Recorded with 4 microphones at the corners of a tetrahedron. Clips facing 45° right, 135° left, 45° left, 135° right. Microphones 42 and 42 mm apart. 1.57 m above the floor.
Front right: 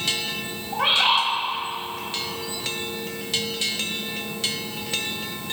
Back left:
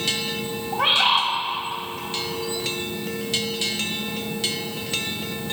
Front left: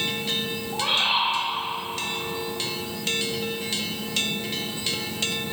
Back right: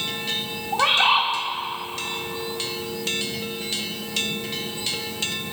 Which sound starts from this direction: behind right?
A bird, at 0.7 s.